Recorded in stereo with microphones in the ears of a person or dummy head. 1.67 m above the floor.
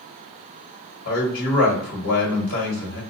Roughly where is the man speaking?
Left.